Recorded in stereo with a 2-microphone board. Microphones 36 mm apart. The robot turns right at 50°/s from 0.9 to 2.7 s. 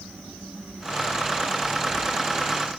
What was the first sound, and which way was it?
Only background noise.